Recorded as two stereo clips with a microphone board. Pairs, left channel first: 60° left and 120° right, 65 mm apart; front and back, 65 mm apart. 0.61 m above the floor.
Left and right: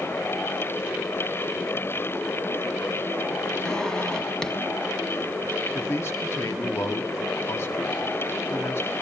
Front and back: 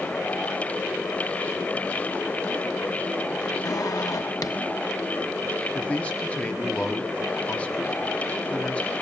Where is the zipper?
20° right, 2.0 m.